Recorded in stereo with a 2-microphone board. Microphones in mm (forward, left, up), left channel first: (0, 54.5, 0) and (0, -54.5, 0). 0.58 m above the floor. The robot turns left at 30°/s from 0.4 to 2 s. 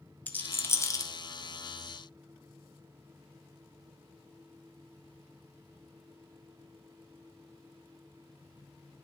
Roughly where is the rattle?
Centre.